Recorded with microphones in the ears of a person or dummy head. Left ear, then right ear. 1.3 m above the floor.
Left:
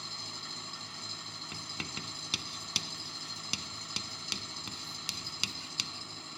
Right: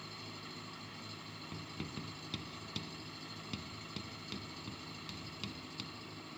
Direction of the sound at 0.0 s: 30° left (ahead or behind).